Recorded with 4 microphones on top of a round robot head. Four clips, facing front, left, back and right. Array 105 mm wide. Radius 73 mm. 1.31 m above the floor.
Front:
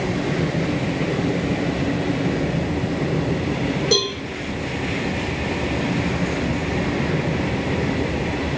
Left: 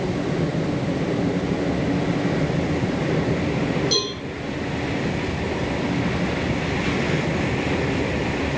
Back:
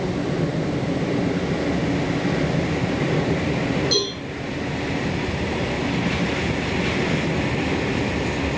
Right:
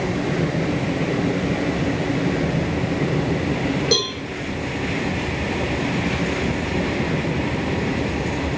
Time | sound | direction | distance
3.9 | a cowbell | 40° right | 6 m